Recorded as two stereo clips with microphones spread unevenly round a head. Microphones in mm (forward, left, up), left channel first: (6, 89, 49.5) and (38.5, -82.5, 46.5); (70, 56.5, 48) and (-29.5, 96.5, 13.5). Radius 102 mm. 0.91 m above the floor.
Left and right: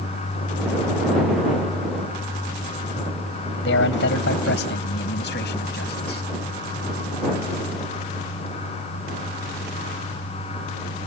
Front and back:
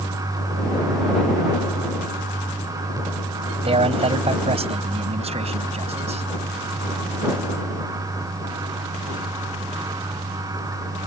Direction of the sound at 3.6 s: 130° left.